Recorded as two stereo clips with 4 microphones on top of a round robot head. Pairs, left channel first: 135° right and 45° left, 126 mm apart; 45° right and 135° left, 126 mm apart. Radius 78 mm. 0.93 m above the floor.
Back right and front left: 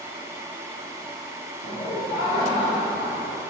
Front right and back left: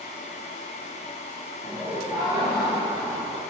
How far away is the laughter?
About 2.5 m.